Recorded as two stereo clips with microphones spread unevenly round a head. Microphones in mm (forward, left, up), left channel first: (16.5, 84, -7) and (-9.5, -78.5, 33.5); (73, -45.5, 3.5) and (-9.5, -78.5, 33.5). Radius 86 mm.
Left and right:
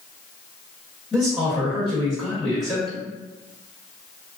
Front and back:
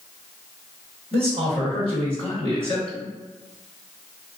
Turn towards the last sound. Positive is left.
turn(degrees=165)